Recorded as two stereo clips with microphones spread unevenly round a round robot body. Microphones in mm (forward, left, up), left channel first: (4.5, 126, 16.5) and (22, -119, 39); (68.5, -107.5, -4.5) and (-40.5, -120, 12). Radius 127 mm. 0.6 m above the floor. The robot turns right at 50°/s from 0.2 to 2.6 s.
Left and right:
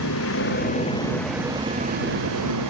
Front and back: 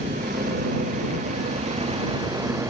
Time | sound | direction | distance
0.0 | a vehicle | 130° left | ?